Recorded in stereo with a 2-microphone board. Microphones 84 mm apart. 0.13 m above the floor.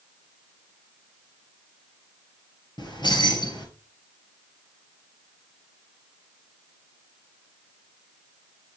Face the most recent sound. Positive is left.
turn(degrees=60)  # may be behind; listen again after turning